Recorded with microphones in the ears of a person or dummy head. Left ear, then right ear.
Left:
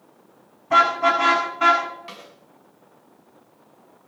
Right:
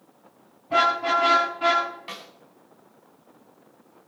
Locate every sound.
0.7 s a car horn: 45° left (ahead or behind), 6.5 m
2.1 s a snare drum: 10° right (ahead or behind), 4.5 m